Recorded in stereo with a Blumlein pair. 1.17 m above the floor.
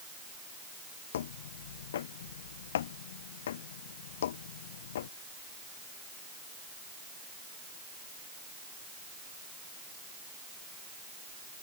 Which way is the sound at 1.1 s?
60° left.